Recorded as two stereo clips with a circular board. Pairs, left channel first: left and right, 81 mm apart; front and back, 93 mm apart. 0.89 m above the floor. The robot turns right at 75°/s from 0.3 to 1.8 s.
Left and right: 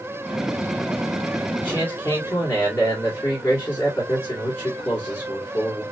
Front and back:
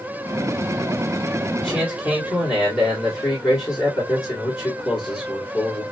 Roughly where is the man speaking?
Ahead.